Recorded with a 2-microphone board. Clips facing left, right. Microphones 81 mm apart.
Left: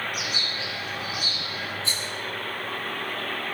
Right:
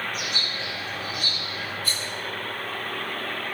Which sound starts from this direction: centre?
A bird, at 0.1 s.